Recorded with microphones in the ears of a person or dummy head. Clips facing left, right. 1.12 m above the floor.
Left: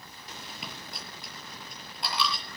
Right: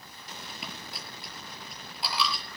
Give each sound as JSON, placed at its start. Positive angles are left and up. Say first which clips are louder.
{"t": 0.6, "sound": "a dropped coin", "louder": "even", "side_deg": -5, "distance_m": 6.5}